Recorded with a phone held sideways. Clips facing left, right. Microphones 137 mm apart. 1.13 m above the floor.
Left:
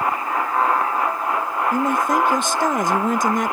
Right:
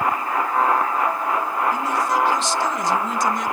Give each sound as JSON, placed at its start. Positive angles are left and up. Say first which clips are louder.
{"t": 1.7, "sound": "a man speaking", "louder": "left 3 dB", "side_deg": 60, "distance_m": 0.7}